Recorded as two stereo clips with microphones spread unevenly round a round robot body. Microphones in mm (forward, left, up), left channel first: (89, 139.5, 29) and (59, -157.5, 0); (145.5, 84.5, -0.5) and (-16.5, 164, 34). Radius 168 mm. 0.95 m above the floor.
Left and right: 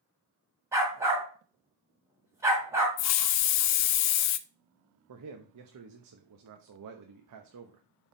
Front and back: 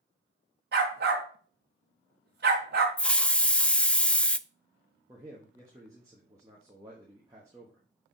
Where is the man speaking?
125° right, 0.8 m.